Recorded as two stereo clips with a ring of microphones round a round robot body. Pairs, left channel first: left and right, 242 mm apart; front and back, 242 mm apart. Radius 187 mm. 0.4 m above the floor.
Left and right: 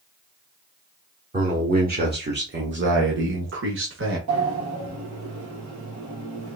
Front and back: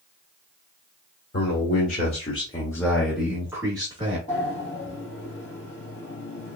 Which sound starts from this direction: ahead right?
A man speaking, at 1.3 s.